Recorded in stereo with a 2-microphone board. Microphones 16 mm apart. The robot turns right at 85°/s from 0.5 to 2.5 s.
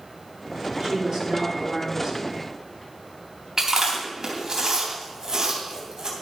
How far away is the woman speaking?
About 6 m.